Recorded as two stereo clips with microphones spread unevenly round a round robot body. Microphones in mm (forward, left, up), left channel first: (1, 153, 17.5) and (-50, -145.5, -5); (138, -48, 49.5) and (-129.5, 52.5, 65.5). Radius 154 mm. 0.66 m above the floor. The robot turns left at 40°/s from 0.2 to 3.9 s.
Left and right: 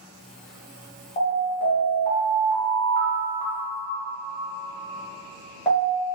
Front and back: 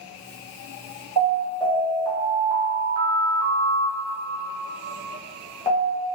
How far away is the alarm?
About 1.2 m.